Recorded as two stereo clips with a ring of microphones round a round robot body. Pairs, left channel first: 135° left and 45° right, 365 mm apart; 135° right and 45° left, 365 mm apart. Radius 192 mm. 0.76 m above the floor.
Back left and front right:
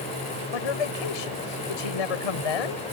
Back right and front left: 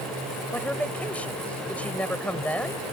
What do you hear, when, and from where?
0.5 s a man speaking: 140° left